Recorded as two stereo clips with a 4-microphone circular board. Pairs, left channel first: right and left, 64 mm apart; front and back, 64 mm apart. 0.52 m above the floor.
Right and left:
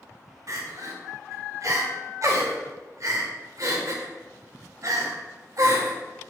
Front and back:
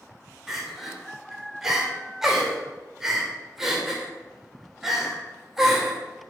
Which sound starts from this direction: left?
Crying, at 0.5 s.